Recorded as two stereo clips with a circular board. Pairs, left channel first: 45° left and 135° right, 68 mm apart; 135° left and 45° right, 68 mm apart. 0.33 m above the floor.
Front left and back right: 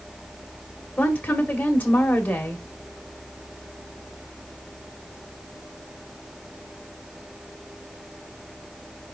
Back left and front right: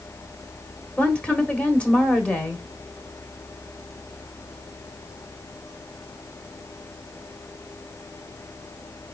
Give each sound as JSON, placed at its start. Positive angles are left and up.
{"t": 1.0, "sound": "a woman speaking", "azimuth_deg": 80, "distance_m": 1.4}